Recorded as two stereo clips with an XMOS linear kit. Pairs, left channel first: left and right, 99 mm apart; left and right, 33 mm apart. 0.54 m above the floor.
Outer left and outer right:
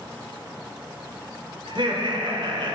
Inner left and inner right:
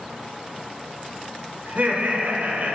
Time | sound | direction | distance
1.7 | laughter | 60° right (ahead or behind) | 1.8 m